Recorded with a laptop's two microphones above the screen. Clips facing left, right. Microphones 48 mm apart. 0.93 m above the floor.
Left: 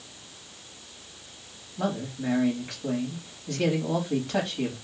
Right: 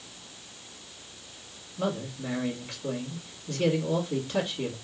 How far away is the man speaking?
About 1.9 m.